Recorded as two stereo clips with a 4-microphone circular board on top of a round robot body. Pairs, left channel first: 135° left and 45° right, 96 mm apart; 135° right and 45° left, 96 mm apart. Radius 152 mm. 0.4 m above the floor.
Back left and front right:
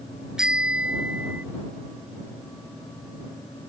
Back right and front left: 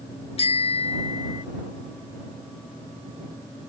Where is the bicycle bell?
125° right; by 1.4 s 120° right.